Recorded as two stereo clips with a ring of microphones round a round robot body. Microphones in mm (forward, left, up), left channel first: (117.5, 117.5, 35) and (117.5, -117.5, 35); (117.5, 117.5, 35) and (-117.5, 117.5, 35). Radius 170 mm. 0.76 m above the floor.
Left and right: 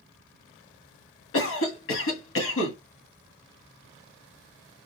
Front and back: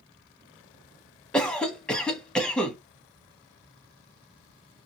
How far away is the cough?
About 1.6 m.